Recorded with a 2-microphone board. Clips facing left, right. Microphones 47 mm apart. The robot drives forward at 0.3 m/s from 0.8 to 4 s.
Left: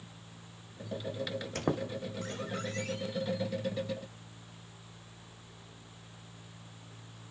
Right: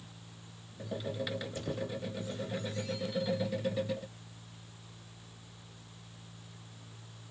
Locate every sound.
1.6 s a squeak: 70° left (ahead or behind), 2.5 m; by 3.3 s 60° left (ahead or behind), 2.5 m